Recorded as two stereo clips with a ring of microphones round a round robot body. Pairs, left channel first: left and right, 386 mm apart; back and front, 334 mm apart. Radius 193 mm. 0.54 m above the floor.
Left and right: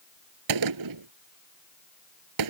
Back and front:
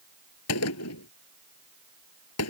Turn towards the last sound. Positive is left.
turn(degrees=-125)